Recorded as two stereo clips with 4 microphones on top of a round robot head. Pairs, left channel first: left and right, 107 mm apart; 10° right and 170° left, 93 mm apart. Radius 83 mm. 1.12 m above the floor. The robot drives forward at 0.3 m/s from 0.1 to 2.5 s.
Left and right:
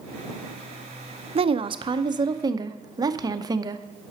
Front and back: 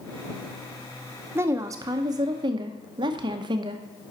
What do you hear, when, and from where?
1.4 s a woman speaking: 120° right, 0.6 m; by 3.9 s 145° right, 0.8 m